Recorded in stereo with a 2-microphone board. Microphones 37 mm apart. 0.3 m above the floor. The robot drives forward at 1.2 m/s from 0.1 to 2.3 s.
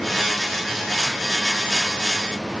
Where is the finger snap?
I don't hear a finger snap.